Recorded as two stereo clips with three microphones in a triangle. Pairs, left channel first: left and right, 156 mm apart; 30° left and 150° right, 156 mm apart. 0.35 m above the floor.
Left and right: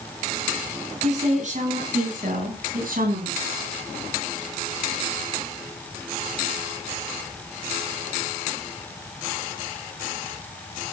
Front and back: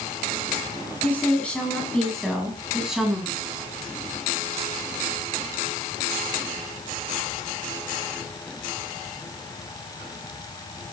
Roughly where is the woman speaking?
Ahead right.